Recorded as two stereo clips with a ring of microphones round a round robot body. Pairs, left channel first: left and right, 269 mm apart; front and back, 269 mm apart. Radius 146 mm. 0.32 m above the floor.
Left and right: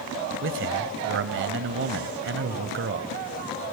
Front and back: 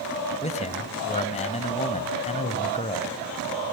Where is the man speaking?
60° right, 1.6 m.